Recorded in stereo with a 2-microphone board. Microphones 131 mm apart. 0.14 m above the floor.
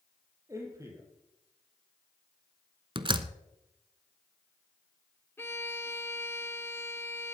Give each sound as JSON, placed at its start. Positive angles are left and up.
{"t": 0.5, "sound": "a man speaking", "side_deg": -25, "distance_m": 4.5}
{"t": 3.0, "sound": "a door slam", "side_deg": -35, "distance_m": 0.9}
{"t": 5.4, "sound": "a violin", "side_deg": 20, "distance_m": 0.8}